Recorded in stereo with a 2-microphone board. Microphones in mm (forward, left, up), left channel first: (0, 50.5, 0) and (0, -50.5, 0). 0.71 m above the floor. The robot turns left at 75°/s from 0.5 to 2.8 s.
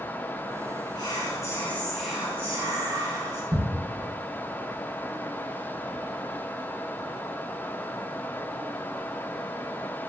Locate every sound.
0.9 s whispering: 80° left, 0.8 m; by 3.4 s 60° right, 0.8 m
3.5 s ticking: 35° right (ahead or behind), 0.5 m